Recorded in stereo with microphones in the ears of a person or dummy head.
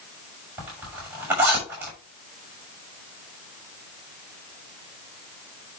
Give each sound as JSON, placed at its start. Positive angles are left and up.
{"t": 0.6, "sound": "a zipper", "side_deg": -15, "distance_m": 6.5}